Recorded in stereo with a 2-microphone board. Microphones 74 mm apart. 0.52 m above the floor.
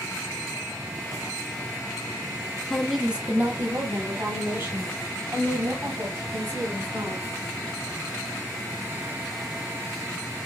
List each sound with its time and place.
2.7 s a woman speaking: 5° left (ahead or behind), 1.0 m; by 7.2 s 75° right (ahead or behind), 4 m